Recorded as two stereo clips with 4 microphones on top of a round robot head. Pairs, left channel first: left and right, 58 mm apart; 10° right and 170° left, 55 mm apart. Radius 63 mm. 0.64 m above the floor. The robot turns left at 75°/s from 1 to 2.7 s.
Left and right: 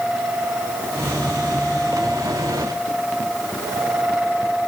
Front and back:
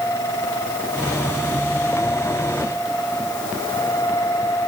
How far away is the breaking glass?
I don't hear breaking glass.